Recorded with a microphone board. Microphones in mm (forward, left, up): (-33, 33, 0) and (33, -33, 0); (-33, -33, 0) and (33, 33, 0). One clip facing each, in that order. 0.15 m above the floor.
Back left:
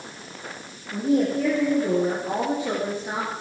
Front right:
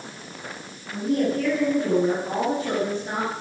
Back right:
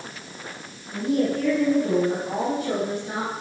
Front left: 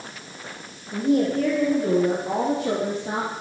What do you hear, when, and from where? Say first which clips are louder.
0.9 s a woman speaking: back left 1 dB, front left 2 dB; 85° left, 7 m; by 3.3 s 50° left, 5 m